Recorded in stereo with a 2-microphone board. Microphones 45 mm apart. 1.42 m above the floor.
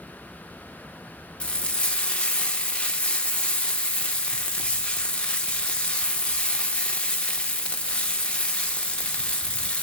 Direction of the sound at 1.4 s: 25° left (ahead or behind).